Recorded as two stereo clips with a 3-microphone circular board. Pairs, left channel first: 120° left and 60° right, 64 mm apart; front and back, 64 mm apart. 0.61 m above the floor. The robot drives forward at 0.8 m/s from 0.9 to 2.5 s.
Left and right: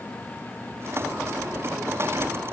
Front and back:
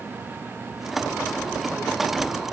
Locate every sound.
Only background noise.